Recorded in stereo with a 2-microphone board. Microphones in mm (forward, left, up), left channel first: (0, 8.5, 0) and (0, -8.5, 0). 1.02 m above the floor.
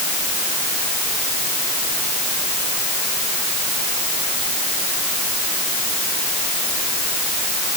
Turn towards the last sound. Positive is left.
No sound to turn to.